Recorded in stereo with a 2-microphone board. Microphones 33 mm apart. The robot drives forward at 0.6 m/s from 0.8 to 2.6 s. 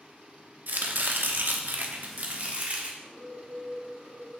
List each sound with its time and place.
0.7 s chopping: 65° right (ahead or behind), 0.9 m; by 2.9 s 45° right (ahead or behind), 1.2 m
3.0 s a bird: 60° left (ahead or behind), 1.2 m